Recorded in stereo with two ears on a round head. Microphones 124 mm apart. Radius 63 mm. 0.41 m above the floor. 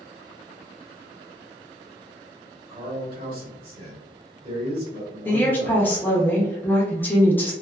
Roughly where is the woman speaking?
Centre.